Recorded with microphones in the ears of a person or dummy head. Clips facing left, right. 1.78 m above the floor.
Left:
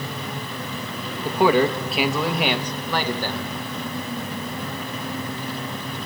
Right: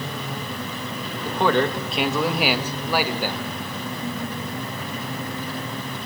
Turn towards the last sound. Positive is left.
turn(degrees=-20)  # may be behind; listen again after turning